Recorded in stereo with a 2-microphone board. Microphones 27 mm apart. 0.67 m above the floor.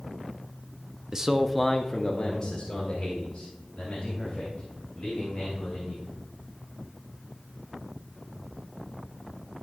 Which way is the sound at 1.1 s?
25° right (ahead or behind).